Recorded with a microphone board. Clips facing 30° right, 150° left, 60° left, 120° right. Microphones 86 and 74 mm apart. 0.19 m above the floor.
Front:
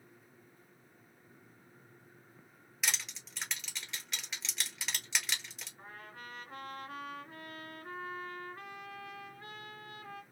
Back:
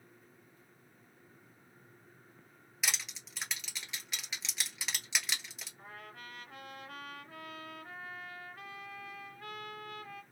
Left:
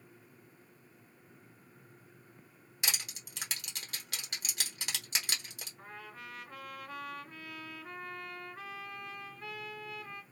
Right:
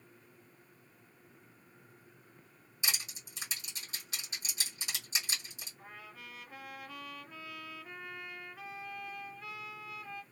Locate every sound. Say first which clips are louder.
2.8 s crushing: even, left 1 dB; 60° left, 1.2 m
5.8 s a trumpet: even, left 3 dB; 25° left, 2 m